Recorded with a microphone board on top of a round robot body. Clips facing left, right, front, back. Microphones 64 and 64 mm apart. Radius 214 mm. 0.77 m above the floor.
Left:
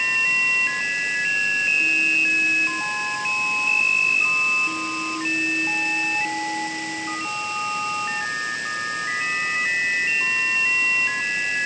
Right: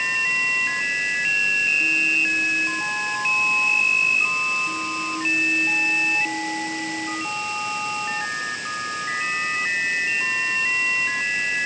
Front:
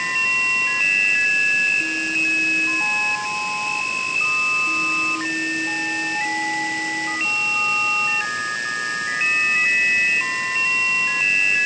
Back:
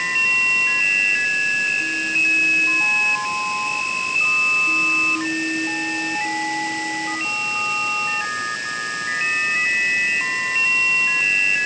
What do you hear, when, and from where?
Only background noise.